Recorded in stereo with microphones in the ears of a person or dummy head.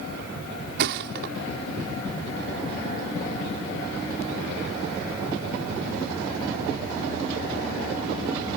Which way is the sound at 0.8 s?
55° right (ahead or behind).